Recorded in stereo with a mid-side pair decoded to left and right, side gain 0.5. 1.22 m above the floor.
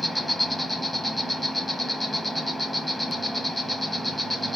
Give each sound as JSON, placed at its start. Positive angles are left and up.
{"t": 0.0, "sound": "an insect", "azimuth_deg": 10, "distance_m": 0.9}